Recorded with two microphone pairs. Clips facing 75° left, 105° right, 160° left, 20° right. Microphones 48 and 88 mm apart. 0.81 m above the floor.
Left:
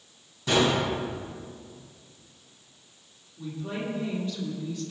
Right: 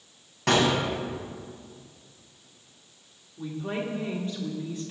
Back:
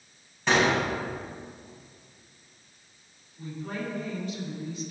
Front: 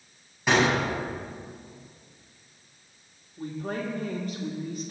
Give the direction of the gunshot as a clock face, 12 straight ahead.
4 o'clock.